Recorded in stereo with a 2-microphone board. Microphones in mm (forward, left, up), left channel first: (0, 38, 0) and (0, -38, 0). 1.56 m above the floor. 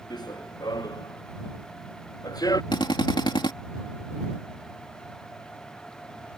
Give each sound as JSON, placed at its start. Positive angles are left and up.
{"t": 0.1, "sound": "running footsteps", "side_deg": 65}
{"t": 2.7, "sound": "a drill", "side_deg": 85}